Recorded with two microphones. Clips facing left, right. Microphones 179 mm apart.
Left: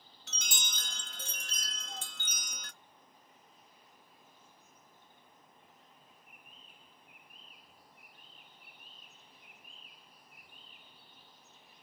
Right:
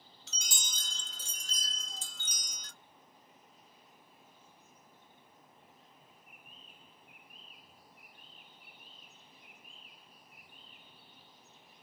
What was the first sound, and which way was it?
A chime, 60° left (ahead or behind).